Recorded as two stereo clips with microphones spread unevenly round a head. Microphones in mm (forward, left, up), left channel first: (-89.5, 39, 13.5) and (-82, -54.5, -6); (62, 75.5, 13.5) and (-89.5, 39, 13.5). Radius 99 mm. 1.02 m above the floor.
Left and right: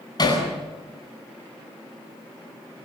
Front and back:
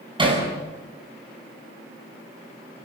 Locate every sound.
0.2 s hammering: 135° left, 9.5 m